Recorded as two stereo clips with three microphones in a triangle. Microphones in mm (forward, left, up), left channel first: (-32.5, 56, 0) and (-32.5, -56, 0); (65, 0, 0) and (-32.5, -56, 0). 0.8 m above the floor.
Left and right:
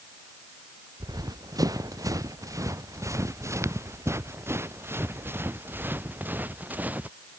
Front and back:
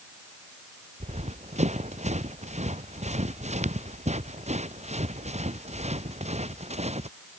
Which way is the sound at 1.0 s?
145° right.